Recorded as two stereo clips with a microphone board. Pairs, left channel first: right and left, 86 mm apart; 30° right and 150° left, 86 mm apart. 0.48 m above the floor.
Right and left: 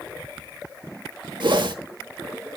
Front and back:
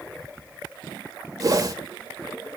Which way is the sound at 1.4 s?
105° left.